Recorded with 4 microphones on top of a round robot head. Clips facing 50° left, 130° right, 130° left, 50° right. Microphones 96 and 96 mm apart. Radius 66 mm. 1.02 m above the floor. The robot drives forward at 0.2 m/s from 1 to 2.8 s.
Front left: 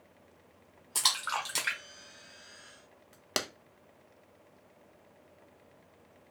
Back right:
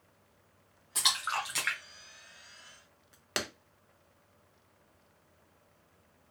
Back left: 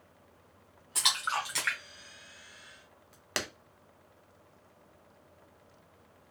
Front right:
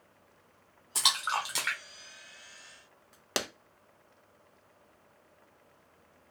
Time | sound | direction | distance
0.9 | a splash | 5° left | 0.6 m
3.4 | a clap | 5° left | 0.5 m